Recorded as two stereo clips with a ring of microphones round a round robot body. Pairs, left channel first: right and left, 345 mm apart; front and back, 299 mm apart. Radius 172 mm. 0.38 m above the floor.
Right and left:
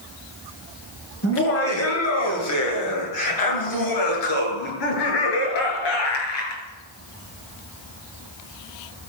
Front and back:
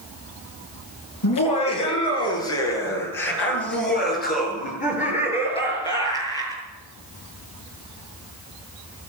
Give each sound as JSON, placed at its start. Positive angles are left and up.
{"t": 1.2, "sound": "laughter", "azimuth_deg": -35, "distance_m": 7.5}